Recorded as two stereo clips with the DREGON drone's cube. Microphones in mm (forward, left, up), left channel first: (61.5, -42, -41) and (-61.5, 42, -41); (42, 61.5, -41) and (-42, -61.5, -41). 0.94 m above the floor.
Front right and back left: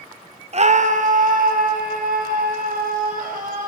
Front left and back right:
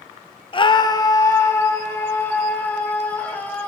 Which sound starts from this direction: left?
A scream, at 0.5 s.